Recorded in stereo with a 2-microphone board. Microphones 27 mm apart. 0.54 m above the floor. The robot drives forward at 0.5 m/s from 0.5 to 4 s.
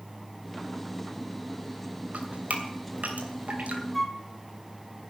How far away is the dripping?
About 2.5 m.